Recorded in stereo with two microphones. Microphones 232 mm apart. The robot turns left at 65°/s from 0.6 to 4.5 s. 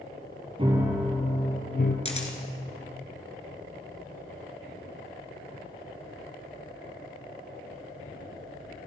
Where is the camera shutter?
30° left (ahead or behind), 0.9 m; by 2.4 s 35° left (ahead or behind), 0.9 m.